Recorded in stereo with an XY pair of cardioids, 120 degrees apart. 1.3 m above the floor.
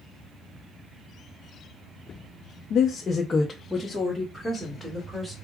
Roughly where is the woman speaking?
Ahead left.